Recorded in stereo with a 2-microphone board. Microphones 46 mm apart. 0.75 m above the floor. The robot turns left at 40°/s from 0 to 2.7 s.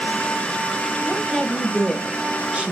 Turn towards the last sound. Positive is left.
turn(degrees=-25)  # may be behind; listen again after turning